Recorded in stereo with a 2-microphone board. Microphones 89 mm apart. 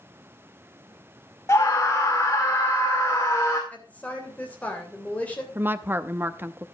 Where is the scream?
30° left (ahead or behind), 1.6 m.